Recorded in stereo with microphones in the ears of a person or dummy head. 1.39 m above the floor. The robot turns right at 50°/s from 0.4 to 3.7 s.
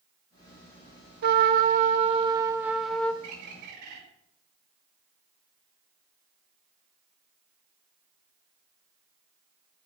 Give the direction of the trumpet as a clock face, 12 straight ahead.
3 o'clock.